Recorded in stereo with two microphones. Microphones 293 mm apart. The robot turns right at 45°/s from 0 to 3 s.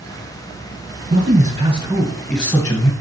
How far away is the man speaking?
About 1.7 m.